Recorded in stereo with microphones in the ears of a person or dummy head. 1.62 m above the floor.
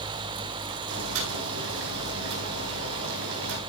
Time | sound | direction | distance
0.9 | boiling | 70° right (ahead or behind) | 4.5 m